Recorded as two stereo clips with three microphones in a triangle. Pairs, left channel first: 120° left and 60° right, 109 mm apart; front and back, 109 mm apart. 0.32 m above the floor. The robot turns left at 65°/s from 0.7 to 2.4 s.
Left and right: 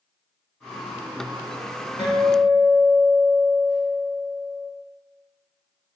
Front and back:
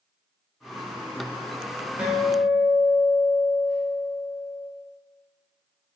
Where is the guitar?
110° left, 1.6 m; by 4.7 s 85° left, 1.6 m.